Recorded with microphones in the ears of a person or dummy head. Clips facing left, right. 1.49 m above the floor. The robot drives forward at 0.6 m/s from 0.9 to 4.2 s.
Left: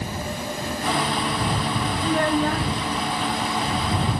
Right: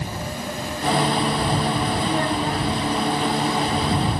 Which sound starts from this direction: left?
A child speaking, at 2.0 s.